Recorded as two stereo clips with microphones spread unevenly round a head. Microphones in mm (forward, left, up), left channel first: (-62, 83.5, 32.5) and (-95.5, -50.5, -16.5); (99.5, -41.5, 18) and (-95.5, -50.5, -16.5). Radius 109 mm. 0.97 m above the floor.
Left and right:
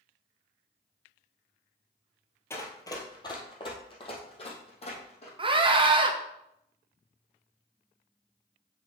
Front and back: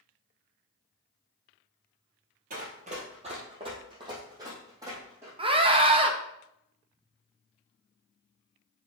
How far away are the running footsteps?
About 1.6 m.